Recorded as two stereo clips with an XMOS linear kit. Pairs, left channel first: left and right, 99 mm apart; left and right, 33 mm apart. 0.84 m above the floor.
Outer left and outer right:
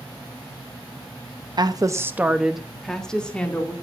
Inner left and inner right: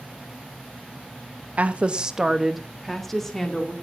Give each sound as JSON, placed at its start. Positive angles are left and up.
{"t": 1.6, "sound": "a woman speaking", "side_deg": -45, "distance_m": 0.8}